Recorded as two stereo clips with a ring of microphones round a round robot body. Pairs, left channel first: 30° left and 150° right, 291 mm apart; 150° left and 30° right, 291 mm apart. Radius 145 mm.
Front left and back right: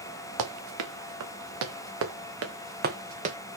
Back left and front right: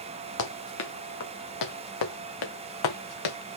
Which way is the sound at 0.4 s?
170° right.